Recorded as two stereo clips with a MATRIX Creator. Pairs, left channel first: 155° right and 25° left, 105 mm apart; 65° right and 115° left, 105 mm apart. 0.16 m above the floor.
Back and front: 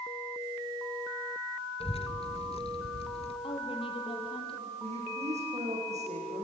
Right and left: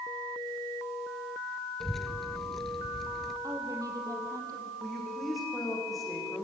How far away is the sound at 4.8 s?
About 9 m.